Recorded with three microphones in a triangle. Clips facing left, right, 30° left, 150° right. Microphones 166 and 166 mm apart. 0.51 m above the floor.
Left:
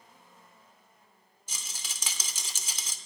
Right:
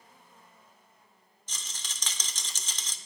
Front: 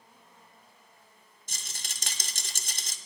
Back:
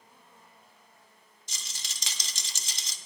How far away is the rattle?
About 0.7 m.